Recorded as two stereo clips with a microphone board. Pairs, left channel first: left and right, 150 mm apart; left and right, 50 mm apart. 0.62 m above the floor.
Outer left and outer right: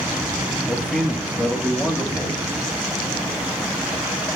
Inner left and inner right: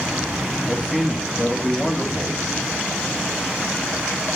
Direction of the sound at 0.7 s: Centre (ahead or behind).